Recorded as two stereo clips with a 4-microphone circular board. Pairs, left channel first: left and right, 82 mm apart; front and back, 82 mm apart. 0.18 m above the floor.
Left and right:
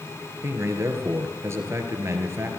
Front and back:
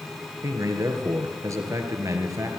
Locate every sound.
0.4 s a man speaking: 140° right, 2.5 m